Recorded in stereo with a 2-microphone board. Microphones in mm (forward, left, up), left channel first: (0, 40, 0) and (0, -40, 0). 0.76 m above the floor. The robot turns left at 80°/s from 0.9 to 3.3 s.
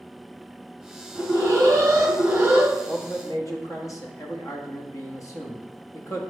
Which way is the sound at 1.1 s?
45° right.